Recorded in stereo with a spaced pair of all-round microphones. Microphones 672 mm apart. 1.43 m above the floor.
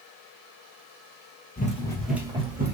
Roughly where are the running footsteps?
Centre.